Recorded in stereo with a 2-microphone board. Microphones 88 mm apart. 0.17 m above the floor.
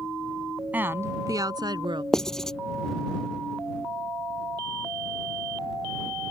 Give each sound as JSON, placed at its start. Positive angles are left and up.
{"t": 0.7, "sound": "a woman speaking", "side_deg": -20}
{"t": 2.1, "sound": "writing", "side_deg": 5}